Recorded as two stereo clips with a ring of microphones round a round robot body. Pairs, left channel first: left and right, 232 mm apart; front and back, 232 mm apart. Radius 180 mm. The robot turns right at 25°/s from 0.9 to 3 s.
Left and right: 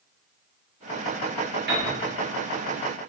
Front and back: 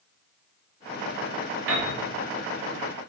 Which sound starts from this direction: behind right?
A piano, at 1.7 s.